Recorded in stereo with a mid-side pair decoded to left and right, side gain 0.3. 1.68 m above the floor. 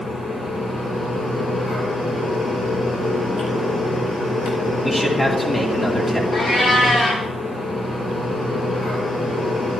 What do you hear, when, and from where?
0.0 s a fan: 65° left, 5 m
4.8 s a man speaking: 25° left, 3.5 m
6.3 s a cat meowing: 65° left, 3 m